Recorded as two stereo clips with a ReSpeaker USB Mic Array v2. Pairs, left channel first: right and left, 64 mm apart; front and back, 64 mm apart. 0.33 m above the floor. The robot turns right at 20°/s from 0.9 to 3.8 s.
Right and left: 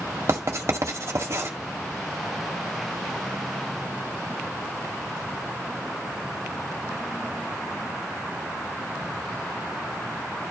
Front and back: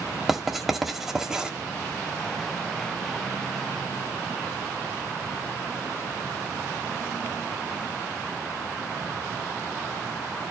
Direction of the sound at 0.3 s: 95° left.